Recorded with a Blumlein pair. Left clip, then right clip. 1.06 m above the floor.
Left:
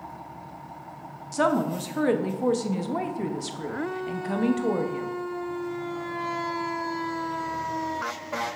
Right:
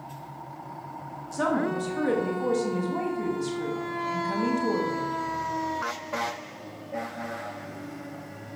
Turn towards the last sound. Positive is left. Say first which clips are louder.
# left 2 dB
turn(degrees=20)